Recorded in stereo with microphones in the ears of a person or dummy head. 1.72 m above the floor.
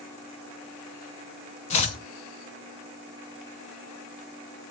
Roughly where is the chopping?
Left.